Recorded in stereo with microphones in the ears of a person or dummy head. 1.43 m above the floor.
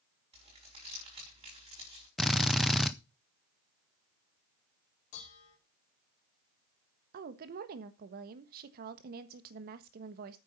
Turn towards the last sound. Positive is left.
turn(degrees=-55)  # may be behind; listen again after turning